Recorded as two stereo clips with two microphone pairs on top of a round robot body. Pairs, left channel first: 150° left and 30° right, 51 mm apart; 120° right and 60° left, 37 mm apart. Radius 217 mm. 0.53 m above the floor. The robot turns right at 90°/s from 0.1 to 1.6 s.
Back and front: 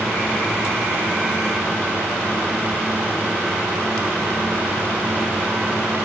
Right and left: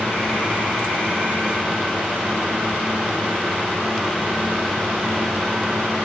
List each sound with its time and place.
Only background noise.